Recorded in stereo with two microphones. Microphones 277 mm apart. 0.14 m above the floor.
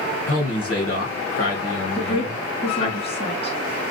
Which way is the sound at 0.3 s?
55° left (ahead or behind).